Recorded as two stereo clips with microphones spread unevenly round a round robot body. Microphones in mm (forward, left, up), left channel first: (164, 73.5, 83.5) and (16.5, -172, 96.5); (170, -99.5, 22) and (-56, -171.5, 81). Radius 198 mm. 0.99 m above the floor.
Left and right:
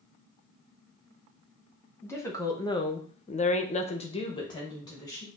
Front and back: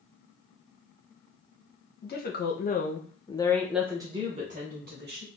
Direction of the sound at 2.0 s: 20° right.